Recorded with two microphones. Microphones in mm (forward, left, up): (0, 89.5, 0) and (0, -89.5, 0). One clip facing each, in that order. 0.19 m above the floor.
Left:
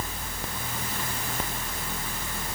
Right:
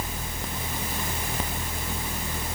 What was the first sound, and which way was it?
Only background noise.